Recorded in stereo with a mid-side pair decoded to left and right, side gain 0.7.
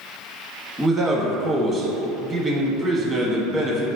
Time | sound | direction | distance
0.8 | a man speaking | 20° right | 1.1 m